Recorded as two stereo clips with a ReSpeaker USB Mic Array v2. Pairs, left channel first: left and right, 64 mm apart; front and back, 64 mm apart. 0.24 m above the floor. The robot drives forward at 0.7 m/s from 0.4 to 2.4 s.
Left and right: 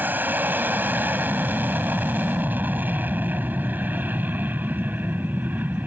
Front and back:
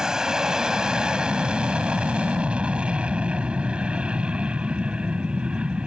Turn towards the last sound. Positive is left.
turn(degrees=-120)